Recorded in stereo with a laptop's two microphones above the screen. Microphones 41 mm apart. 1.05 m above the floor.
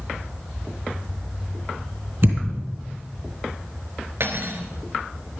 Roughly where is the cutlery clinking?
Right.